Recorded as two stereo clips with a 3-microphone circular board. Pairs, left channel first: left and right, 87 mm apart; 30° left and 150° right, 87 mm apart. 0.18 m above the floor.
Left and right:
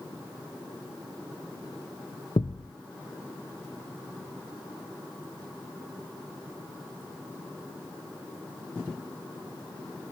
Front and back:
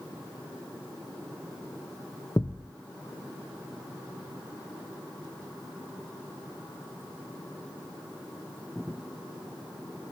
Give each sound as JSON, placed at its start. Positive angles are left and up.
{"t": 2.4, "sound": "a thud", "azimuth_deg": 85, "distance_m": 1.1}